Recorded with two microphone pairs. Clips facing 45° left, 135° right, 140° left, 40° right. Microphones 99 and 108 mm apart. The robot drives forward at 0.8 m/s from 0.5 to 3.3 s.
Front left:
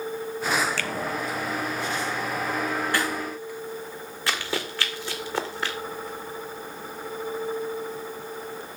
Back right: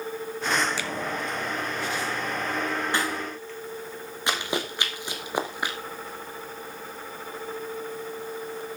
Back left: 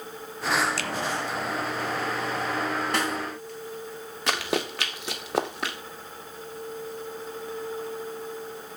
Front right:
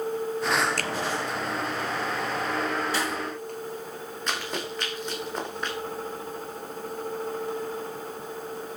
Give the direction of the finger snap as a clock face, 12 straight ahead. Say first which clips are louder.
Front left 1 dB, front right 2 dB; 2 o'clock.